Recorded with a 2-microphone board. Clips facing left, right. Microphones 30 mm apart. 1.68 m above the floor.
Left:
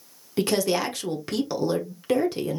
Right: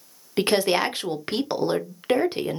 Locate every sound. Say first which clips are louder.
0.4 s a woman speaking: right 2 dB; 35° right (ahead or behind), 0.8 m